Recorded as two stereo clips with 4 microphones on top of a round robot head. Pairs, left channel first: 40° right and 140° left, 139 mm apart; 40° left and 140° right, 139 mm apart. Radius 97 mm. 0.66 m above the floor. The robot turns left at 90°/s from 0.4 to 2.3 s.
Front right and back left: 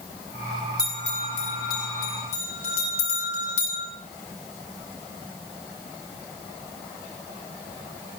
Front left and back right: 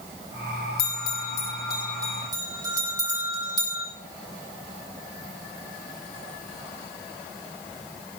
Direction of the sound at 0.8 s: 55° left.